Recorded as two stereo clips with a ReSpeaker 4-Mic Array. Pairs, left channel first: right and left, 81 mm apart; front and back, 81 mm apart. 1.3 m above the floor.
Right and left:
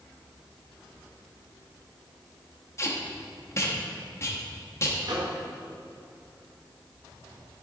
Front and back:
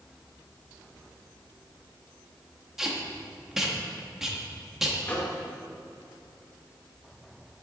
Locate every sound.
2.8 s tape being pulled: 95° right, 0.8 m
5.0 s a microwave: 70° left, 1.0 m